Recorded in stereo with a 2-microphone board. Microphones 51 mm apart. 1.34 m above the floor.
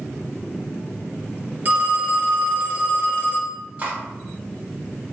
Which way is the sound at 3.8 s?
30° right (ahead or behind).